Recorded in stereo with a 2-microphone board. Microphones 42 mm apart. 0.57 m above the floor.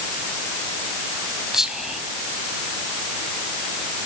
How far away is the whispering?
About 4 m.